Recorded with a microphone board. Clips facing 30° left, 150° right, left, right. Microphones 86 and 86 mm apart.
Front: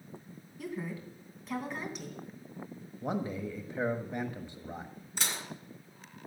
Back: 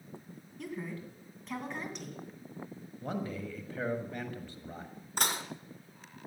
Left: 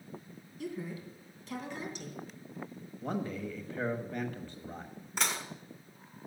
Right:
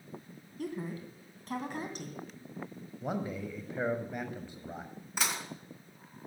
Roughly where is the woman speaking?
Ahead right.